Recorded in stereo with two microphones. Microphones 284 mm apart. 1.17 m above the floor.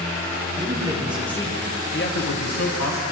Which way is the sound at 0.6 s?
25° right (ahead or behind).